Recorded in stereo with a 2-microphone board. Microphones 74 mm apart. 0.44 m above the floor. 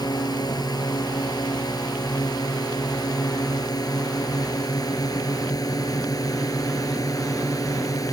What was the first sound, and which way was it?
A drone, 60° left (ahead or behind).